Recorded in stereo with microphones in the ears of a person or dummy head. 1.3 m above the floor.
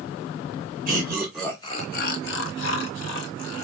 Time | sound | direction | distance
0.9 | laughter | 20° right (ahead or behind) | 0.7 m